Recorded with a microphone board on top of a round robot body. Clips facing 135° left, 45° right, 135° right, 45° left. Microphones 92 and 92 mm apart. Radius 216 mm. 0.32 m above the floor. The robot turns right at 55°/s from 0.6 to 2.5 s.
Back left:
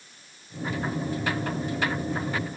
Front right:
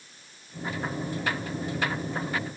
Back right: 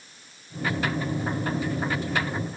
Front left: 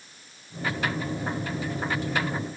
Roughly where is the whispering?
I don't hear whispering.